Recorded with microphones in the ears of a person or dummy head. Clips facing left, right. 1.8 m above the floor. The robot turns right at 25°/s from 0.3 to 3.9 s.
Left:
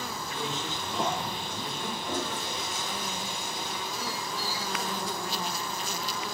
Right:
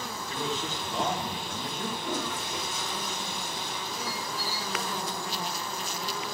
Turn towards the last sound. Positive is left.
turn(degrees=5)  # may be behind; listen again after turning